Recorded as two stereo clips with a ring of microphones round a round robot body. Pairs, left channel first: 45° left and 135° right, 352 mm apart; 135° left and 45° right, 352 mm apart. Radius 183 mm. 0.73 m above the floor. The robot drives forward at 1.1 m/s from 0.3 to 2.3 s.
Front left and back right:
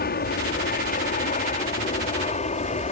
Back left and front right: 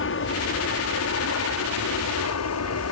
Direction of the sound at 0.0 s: 100° left.